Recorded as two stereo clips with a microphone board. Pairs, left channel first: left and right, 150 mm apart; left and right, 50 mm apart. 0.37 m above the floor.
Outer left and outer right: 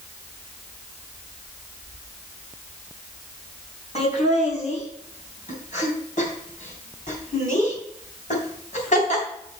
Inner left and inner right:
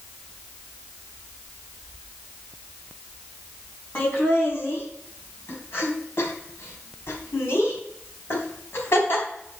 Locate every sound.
4.0 s laughter: 50° left (ahead or behind), 3.5 m; by 9.2 s 60° left (ahead or behind), 3.5 m